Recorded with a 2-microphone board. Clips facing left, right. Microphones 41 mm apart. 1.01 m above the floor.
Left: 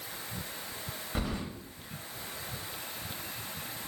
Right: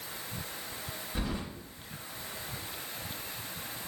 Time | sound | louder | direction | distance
1.1 | keys jangling | left 1 dB | 60° left (ahead or behind) | 0.9 m